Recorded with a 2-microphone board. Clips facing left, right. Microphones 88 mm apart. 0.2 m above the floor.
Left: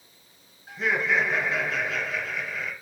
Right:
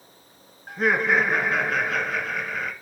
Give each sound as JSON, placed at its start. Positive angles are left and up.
{"t": 0.7, "sound": "laughter", "side_deg": -50, "distance_m": 3.0}